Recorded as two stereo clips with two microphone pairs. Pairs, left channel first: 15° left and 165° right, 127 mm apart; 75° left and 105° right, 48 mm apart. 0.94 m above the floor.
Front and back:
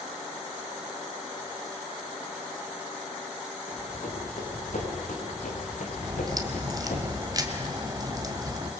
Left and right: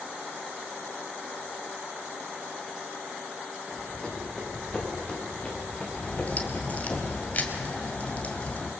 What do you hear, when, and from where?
3.7 s running footsteps: straight ahead, 6.5 m; by 7.0 s 25° left, 4 m
6.0 s a crack: 135° left, 2 m